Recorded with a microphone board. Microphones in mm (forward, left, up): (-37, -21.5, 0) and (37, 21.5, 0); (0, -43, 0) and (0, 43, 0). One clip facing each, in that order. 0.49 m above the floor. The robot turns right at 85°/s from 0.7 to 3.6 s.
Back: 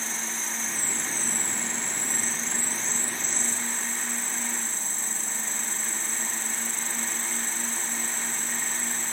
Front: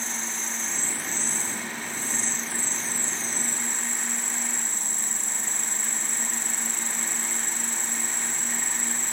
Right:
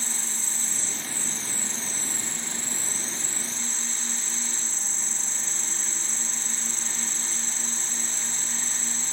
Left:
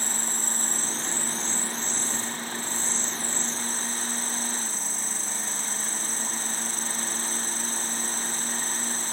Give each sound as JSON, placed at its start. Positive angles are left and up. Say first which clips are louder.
{"t": 0.0, "sound": "an insect", "louder": "even, left 5 dB", "azimuth_deg": 120}